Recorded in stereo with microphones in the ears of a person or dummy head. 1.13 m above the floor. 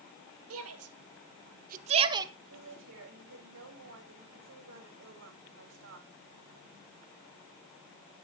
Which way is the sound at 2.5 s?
50° right (ahead or behind).